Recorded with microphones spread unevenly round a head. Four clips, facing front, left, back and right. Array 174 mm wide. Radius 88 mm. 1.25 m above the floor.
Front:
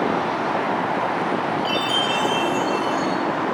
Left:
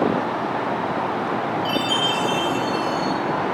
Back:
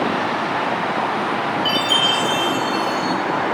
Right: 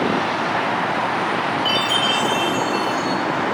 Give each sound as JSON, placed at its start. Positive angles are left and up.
{"t": 1.6, "sound": "a chime", "azimuth_deg": 160, "distance_m": 6.0}